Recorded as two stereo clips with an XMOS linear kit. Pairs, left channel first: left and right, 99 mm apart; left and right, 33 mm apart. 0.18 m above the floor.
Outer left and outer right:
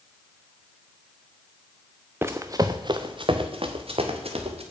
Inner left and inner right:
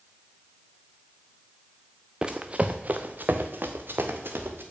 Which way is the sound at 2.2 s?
20° right (ahead or behind).